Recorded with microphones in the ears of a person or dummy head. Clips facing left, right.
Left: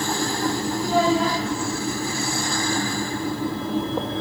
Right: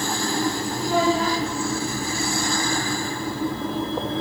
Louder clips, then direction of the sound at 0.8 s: Left 1 dB; 45° right (ahead or behind).